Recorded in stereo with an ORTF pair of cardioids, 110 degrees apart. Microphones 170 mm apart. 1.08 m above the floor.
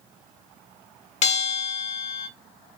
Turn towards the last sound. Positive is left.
turn(degrees=40)